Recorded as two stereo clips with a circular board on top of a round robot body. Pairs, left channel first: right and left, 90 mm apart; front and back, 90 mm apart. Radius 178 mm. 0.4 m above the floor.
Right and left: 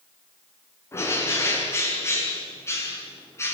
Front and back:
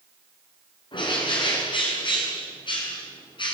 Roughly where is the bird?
Ahead right.